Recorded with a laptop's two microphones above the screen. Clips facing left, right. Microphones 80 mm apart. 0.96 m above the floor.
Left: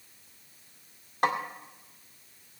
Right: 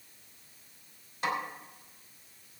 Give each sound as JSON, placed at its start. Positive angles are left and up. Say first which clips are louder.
{"t": 1.2, "sound": "a snare drum", "louder": "left 5 dB", "side_deg": 60, "distance_m": 2.0}